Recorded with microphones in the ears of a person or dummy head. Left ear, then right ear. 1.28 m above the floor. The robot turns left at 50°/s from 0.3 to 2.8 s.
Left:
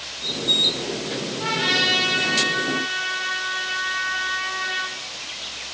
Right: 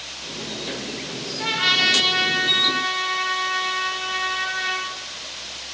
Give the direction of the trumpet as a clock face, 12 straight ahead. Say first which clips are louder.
Right 2 dB; 12 o'clock.